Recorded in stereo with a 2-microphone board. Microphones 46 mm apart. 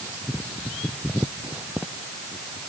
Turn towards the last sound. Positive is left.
No sound to turn to.